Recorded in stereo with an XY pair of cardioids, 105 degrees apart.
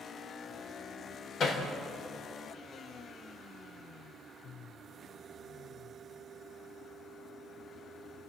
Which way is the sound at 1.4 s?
60° left.